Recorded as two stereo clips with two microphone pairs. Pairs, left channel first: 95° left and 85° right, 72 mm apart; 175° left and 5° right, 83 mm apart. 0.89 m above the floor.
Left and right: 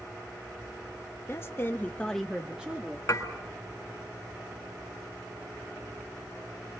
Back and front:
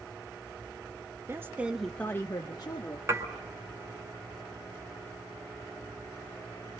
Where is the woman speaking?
50° left, 1.3 m; by 3.0 s 155° right, 1.8 m.